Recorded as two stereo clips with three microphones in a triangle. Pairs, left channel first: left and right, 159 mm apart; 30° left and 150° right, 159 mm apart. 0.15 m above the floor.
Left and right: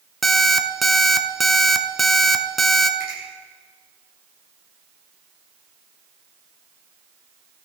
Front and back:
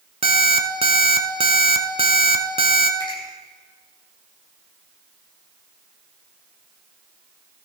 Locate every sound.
0.2 s an alarm clock: straight behind, 0.9 m
3.0 s a finger snap: 85° left, 6 m